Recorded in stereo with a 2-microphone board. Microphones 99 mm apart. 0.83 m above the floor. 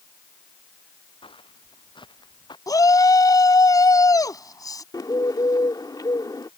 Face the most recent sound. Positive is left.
turn(degrees=40)  # may be behind; listen again after turning